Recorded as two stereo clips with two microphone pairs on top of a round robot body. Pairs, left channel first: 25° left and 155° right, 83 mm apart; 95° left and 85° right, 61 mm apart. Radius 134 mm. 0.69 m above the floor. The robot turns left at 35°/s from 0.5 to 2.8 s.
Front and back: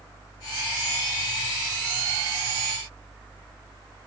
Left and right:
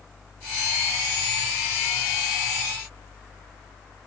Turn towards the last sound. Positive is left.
No sound to turn to.